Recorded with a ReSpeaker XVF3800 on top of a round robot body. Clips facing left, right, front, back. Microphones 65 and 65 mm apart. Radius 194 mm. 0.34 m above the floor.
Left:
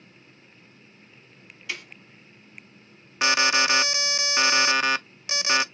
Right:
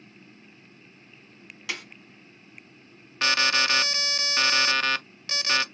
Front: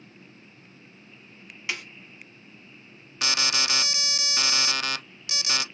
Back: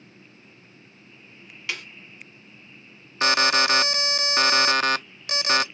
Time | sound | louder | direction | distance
1.7 | a snare drum | even, even | 70° right | 2.0 m
3.2 | an alarm | left 2 dB, back 8 dB | 160° left | 0.6 m